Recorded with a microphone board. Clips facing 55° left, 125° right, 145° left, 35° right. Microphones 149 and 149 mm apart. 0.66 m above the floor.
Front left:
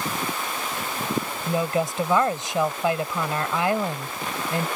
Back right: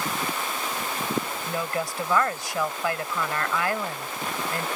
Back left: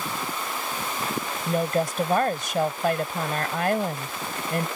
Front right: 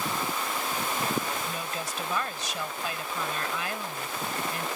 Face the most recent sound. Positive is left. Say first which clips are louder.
# front left 5 dB, back left 11 dB
turn(degrees=120)